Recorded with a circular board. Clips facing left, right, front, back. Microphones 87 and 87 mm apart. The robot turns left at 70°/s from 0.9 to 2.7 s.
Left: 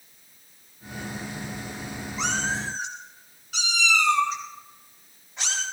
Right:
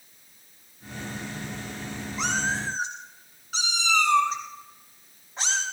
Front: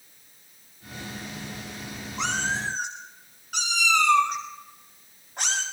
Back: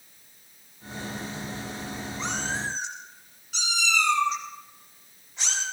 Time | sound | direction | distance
2.2 | a cat meowing | straight ahead | 7.5 m